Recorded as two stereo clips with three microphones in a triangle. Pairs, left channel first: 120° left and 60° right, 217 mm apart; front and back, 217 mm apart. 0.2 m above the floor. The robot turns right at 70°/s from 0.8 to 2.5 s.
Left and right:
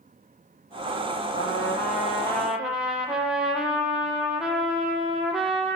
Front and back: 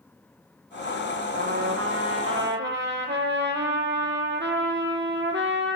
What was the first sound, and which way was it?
A trumpet, 130° left.